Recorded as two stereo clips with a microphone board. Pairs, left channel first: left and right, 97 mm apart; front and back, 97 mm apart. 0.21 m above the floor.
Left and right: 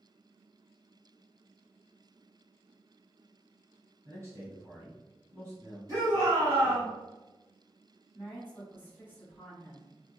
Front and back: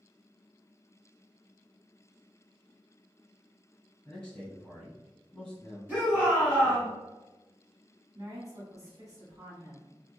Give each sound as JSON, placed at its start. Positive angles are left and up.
{"t": 4.0, "sound": "a man speaking", "azimuth_deg": -75, "distance_m": 1.5}
{"t": 5.9, "sound": "a shout", "azimuth_deg": -115, "distance_m": 1.6}
{"t": 8.1, "sound": "a woman speaking", "azimuth_deg": 145, "distance_m": 1.3}